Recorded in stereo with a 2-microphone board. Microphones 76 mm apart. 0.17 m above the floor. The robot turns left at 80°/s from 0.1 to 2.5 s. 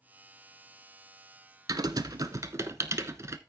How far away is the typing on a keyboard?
About 0.7 m.